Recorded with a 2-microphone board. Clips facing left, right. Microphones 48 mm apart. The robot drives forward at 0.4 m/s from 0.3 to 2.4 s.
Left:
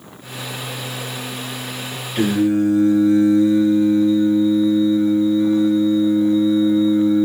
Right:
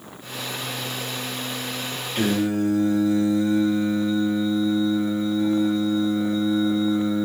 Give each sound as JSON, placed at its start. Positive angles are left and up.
{"t": 2.1, "sound": "singing", "side_deg": 10, "distance_m": 1.1}